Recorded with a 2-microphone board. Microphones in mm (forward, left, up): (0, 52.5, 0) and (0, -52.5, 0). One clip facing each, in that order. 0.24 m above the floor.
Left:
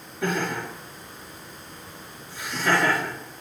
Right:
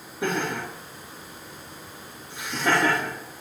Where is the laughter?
20° right (ahead or behind), 4 m.